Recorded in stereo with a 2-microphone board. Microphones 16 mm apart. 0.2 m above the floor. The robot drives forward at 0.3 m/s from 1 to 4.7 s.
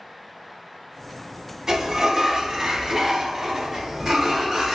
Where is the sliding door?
30° right (ahead or behind), 0.8 m; by 4.8 s 20° right (ahead or behind), 1.2 m.